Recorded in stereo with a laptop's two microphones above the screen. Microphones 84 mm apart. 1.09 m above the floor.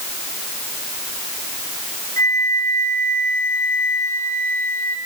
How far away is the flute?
About 3 m.